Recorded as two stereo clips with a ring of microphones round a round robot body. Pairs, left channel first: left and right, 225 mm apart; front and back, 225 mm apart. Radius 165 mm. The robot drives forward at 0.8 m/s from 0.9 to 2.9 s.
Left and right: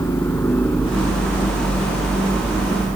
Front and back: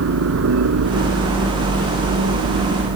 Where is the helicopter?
175° left; by 3.0 s straight behind.